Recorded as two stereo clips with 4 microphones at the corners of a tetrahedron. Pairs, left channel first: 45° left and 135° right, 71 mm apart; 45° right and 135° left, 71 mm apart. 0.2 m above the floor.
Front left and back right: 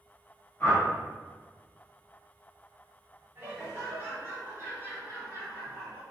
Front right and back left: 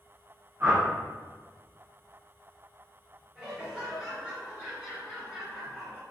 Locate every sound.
0.6 s a whoosh: 100° left, 1.7 m
3.4 s laughter: 165° right, 1.5 m